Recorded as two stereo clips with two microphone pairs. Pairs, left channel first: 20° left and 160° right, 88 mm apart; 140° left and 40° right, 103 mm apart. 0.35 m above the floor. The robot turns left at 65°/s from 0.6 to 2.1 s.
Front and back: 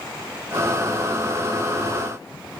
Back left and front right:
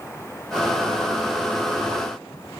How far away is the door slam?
I don't hear a door slam.